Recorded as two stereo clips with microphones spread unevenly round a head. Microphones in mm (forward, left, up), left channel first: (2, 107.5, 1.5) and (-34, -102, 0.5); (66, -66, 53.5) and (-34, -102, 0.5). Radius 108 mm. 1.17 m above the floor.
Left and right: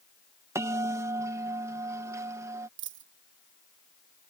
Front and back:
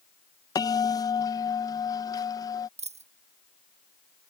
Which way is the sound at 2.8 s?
130° right.